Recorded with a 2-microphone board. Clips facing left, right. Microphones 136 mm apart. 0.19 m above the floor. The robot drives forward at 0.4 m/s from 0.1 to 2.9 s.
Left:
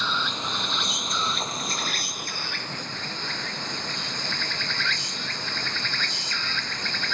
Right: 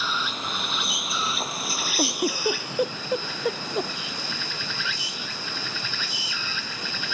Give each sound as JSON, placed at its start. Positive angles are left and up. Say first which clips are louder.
{"t": 0.0, "sound": "an insect", "louder": "left 1 dB", "side_deg": -5}
{"t": 2.0, "sound": "a giggle", "louder": "right 12 dB", "side_deg": -75}